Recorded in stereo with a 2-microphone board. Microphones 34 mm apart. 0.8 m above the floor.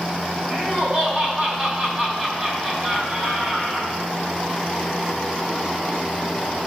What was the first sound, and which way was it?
Laughter, 35° right (ahead or behind).